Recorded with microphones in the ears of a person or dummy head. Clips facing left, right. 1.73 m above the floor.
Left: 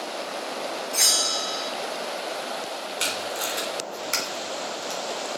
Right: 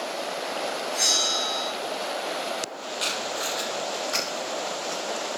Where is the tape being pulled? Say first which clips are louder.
Right 1 dB; 40° left (ahead or behind), 3 m.